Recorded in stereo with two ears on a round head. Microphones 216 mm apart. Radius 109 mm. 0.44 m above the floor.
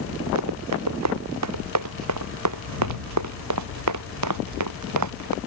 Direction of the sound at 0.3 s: 80° right.